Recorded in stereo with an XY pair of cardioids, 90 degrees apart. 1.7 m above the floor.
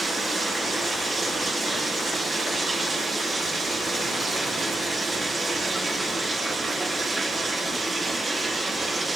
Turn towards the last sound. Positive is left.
turn(degrees=-40)